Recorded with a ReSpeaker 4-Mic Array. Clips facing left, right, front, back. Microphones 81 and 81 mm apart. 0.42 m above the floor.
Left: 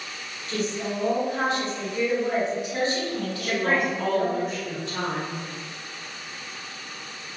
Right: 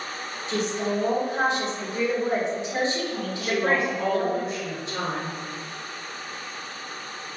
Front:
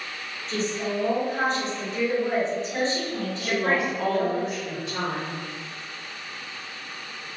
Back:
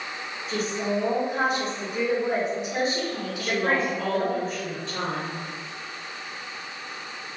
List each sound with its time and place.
0.5 s a woman speaking: 115° right, 1.1 m
3.4 s a woman speaking: 60° right, 1.4 m